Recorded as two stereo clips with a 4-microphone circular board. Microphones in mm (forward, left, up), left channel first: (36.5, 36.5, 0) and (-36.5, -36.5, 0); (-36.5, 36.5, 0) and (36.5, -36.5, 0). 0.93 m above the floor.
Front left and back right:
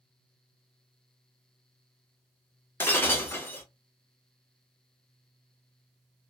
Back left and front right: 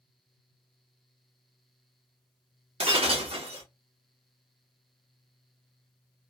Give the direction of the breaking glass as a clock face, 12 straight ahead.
1 o'clock.